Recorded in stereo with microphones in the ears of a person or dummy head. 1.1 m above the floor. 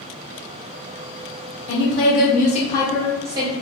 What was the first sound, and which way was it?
A woman speaking, 65° left (ahead or behind).